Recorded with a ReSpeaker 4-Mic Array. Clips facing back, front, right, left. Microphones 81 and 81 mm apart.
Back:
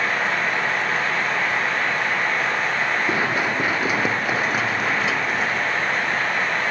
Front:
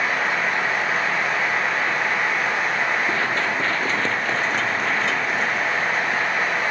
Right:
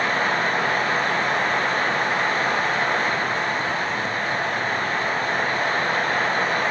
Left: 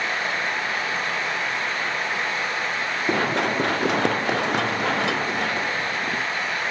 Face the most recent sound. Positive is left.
turn(degrees=90)